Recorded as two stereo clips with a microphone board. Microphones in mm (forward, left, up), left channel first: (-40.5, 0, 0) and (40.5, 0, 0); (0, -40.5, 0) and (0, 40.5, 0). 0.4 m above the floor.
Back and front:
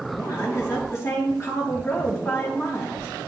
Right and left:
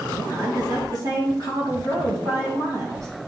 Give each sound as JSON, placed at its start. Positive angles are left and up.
{"t": 0.2, "sound": "a woman speaking", "azimuth_deg": 130, "distance_m": 3.0}